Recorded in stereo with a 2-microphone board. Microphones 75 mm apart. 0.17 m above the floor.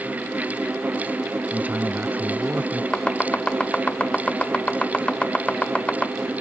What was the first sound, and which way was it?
A man speaking, 20° right (ahead or behind).